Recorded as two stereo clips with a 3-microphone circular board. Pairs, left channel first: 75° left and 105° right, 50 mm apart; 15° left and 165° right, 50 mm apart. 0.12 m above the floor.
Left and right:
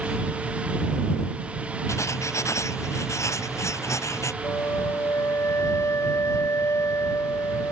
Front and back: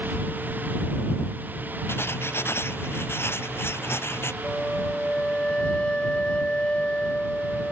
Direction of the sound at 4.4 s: 85° left.